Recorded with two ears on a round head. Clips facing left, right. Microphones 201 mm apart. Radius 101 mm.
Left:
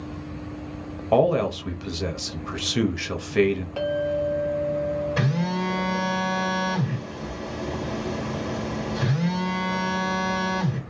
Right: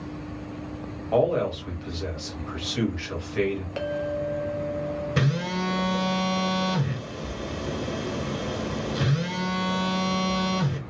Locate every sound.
1.1 s a man speaking: 55° left (ahead or behind), 0.8 m
3.8 s a clink: 20° right (ahead or behind), 0.8 m
5.2 s a phone buzzing: 30° right (ahead or behind), 1.6 m